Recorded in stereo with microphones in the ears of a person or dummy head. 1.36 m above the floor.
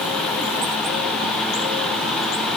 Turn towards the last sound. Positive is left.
No sound to turn to.